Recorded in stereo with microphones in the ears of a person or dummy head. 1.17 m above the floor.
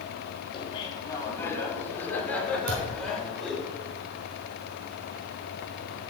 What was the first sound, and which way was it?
Laughter, 30° left (ahead or behind).